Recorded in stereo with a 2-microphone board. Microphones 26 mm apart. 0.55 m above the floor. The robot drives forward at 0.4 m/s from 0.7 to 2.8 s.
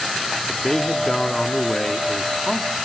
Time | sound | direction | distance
0.5 | a man speaking | 20° left (ahead or behind) | 1.3 m